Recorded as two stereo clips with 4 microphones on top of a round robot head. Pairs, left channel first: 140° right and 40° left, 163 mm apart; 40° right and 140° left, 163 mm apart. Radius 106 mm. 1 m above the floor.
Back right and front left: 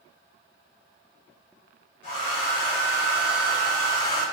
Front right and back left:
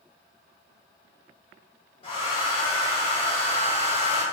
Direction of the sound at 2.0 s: 100° right.